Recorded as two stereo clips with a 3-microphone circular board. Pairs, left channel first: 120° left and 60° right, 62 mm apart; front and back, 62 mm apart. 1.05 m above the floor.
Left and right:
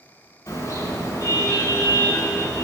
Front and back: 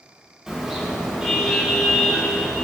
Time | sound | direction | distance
0.5 | a car horn | 95° left | 5.5 m